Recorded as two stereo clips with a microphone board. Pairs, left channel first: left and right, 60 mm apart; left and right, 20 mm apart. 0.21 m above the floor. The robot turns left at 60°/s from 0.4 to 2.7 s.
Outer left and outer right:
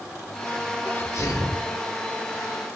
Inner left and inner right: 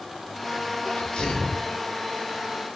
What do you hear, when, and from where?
0.8 s a sneeze: 135° left, 5.5 m; by 1.8 s 80° left, 5.5 m